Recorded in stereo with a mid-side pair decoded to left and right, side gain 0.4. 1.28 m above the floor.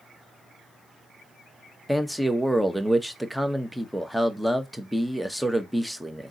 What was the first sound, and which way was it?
A man speaking, straight ahead.